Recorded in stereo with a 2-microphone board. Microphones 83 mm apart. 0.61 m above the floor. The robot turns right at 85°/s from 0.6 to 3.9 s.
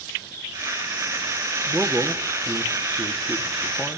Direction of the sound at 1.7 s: 15° right (ahead or behind).